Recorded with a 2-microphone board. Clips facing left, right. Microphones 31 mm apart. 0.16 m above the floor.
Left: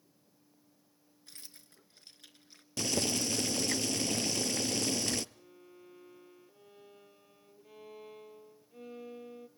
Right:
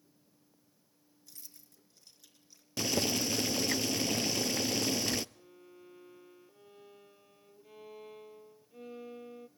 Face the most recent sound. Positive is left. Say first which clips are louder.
# even
turn(degrees=-5)  # may be behind; listen again after turning